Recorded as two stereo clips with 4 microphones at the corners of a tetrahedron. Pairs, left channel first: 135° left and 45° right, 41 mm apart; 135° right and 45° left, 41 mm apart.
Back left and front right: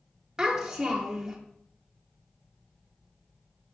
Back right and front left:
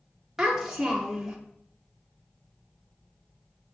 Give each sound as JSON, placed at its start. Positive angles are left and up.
{"t": 0.4, "sound": "a child speaking", "azimuth_deg": -15, "distance_m": 0.6}